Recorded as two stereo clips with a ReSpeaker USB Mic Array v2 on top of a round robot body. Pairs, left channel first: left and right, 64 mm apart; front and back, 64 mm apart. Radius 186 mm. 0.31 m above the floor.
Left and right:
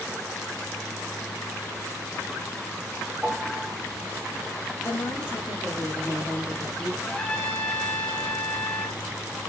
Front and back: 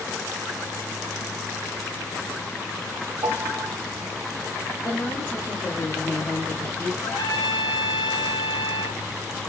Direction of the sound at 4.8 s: 45° left.